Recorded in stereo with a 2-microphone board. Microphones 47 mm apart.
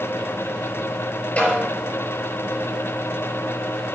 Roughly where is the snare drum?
Left.